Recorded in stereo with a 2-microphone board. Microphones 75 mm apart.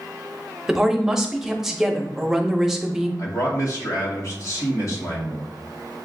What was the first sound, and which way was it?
A woman speaking, 5° right (ahead or behind).